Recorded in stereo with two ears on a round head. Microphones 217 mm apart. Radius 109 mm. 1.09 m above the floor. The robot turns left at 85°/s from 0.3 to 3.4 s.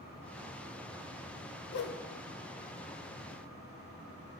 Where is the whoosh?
50° left (ahead or behind), 0.6 m; by 2.0 s 35° left (ahead or behind), 0.6 m.